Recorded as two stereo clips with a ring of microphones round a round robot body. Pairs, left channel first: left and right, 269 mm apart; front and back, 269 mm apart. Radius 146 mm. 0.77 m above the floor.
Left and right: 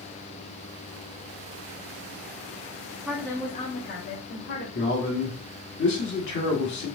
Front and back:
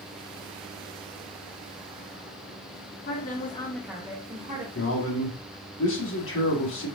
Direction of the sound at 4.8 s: 40° left.